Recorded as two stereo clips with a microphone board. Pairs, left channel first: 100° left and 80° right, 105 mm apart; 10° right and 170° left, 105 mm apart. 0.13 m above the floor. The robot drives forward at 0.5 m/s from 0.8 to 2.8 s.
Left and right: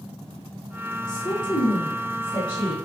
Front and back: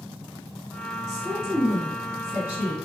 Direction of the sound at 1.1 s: 85° left.